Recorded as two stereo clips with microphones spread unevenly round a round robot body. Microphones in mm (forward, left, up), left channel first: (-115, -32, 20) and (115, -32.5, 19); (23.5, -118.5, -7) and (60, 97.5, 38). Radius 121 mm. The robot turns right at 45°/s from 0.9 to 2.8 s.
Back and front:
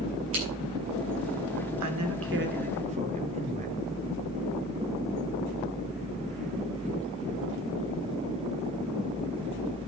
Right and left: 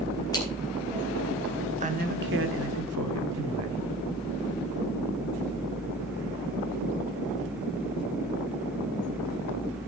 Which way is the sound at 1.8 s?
20° left.